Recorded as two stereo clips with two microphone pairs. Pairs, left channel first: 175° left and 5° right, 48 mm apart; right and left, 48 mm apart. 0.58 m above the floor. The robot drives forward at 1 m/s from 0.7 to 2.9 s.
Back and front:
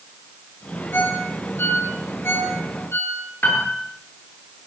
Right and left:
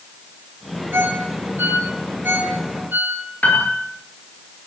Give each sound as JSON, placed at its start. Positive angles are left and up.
{"t": 0.9, "sound": "a ringtone", "azimuth_deg": 130, "distance_m": 7.0}
{"t": 3.4, "sound": "a piano", "azimuth_deg": -145, "distance_m": 8.0}